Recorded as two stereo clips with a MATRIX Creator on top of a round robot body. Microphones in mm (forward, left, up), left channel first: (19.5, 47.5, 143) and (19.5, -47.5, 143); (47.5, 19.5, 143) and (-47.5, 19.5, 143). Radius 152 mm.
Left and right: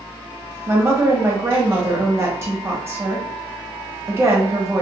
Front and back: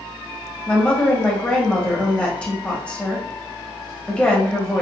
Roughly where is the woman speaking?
Right.